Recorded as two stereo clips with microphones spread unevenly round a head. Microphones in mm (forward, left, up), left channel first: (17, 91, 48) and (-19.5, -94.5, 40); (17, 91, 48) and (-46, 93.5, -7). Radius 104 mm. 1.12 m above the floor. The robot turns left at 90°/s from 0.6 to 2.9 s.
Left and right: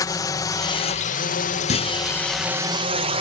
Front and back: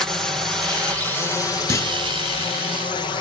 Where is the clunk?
25° left; by 1.9 s 5° left.